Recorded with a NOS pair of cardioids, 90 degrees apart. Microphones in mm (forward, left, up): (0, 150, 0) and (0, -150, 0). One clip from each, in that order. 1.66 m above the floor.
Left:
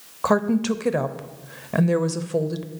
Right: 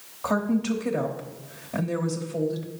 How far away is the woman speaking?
About 0.8 m.